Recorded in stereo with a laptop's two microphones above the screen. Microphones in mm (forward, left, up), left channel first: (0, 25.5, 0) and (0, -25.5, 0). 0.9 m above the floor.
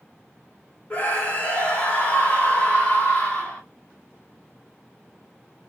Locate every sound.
0.9 s a scream: 30° left (ahead or behind), 2 m